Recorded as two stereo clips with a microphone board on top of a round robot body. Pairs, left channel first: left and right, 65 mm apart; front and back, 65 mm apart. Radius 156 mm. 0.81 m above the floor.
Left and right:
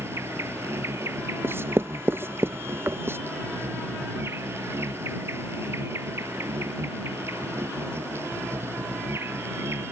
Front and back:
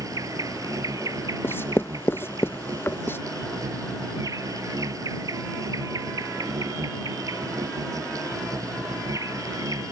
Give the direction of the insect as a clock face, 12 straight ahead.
5 o'clock.